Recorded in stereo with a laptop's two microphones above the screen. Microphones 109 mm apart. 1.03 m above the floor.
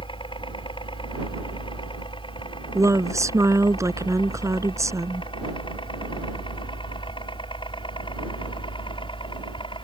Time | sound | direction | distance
0.0 | a helicopter | 50° left (ahead or behind) | ?
2.8 | a woman speaking | 30° right (ahead or behind) | ?